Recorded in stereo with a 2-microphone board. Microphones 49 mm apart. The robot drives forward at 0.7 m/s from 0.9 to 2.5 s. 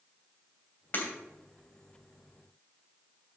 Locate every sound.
0.9 s breaking glass: 45° left (ahead or behind), 2.5 m